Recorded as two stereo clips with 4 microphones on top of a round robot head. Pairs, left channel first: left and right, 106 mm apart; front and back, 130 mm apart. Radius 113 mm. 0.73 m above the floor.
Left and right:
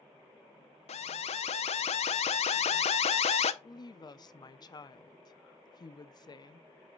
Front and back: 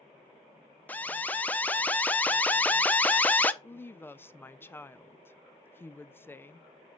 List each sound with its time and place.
0.9 s an alarm: 75° left, 0.6 m
3.6 s a woman speaking: 65° left, 0.6 m